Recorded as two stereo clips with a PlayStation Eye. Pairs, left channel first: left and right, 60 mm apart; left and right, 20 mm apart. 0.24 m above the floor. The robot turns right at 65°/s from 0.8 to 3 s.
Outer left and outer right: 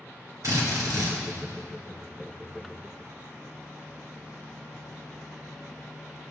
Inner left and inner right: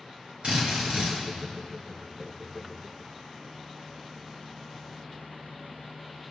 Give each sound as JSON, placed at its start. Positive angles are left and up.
{"t": 0.4, "sound": "a drill", "side_deg": -60, "distance_m": 4.0}